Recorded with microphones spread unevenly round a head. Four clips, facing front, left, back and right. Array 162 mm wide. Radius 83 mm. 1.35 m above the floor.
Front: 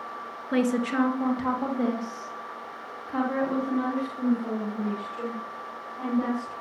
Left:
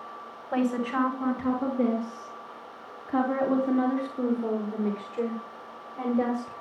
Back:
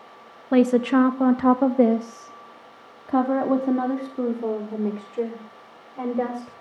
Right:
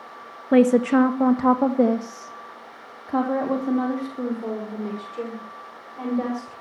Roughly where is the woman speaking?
Behind right.